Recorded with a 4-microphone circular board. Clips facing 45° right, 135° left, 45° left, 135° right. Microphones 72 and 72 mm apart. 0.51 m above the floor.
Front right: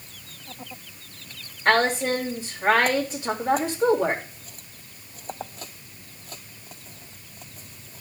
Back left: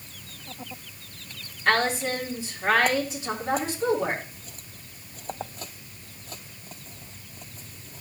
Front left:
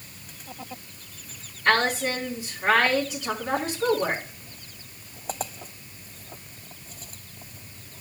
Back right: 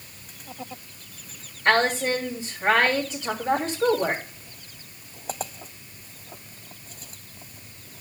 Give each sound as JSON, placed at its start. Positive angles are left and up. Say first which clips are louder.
{"t": 1.6, "sound": "a woman speaking", "louder": "front right 3 dB, back right 2 dB", "azimuth_deg": -80, "distance_m": 3.0}